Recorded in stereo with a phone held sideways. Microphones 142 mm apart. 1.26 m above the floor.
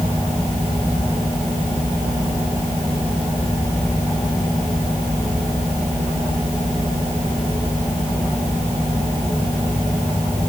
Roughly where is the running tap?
I don't hear a running tap.